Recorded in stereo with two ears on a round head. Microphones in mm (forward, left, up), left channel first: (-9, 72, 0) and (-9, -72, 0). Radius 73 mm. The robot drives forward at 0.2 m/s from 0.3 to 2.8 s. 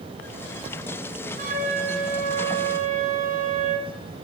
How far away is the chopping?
I don't hear chopping.